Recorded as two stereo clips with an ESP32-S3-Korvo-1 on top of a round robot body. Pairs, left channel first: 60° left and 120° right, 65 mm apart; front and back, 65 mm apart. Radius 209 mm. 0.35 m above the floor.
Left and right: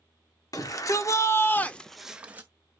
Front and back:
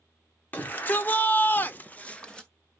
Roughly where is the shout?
Ahead left.